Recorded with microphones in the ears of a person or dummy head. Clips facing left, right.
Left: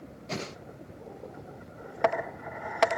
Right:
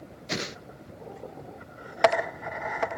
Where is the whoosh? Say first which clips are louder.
Right 2 dB; 25° right (ahead or behind), 0.7 m.